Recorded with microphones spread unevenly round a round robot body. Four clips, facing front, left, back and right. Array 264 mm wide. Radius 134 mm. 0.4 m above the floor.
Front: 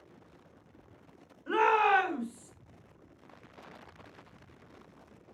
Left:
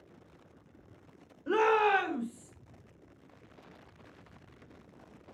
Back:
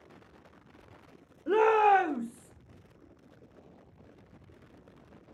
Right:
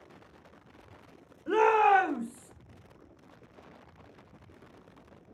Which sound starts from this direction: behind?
A shout, at 1.5 s.